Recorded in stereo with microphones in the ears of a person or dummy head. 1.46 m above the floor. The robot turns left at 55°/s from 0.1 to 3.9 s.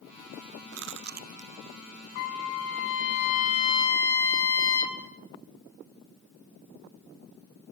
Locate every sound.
0.7 s chewing: 65° right (ahead or behind), 0.6 m; by 1.5 s 30° right (ahead or behind), 0.6 m
2.1 s a trumpet: 115° left, 2.5 m; by 5.0 s 20° left, 2.5 m